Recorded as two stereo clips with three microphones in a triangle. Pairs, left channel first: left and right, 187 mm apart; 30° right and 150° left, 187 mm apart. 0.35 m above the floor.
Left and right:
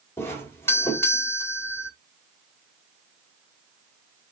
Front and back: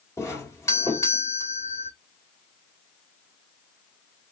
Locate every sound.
0.2 s a doorbell: 25° left, 1.9 m